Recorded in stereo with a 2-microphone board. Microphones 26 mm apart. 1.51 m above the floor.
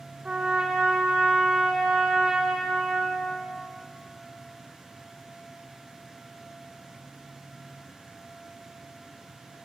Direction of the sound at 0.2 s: 35° right (ahead or behind).